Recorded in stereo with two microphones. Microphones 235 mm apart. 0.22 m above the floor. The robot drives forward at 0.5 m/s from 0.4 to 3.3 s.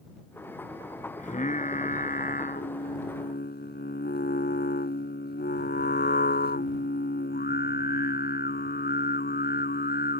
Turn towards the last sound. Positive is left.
turn(degrees=45)  # may be behind; listen again after turning